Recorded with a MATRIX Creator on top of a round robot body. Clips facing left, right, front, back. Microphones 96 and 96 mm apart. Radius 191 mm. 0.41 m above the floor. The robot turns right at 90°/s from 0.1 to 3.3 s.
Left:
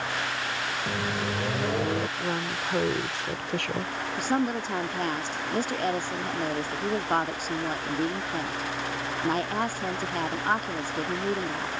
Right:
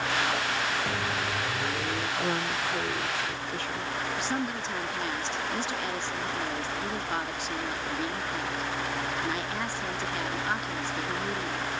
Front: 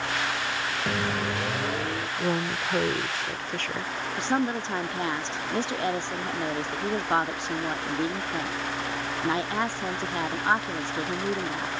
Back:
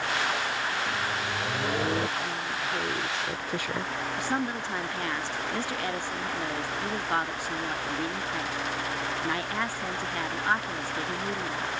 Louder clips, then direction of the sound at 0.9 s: Left 1 dB, front 3 dB; 15° left.